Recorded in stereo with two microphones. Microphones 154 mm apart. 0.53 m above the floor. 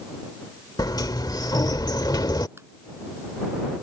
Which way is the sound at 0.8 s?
25° left (ahead or behind).